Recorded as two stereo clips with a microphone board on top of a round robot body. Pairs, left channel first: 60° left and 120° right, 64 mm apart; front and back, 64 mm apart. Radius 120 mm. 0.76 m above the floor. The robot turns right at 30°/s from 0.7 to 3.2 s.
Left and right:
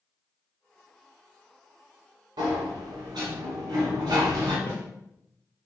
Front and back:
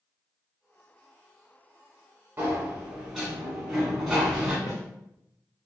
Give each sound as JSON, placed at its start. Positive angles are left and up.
{"t": 2.4, "sound": "a sliding door", "azimuth_deg": -115, "distance_m": 1.4}
{"t": 4.7, "sound": "a snare drum", "azimuth_deg": 15, "distance_m": 1.6}